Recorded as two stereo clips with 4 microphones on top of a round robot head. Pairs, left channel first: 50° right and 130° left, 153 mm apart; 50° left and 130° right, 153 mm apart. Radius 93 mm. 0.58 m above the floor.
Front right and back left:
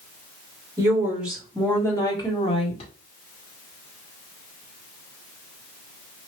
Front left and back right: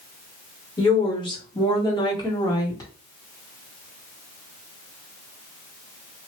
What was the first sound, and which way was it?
A woman speaking, 85° left.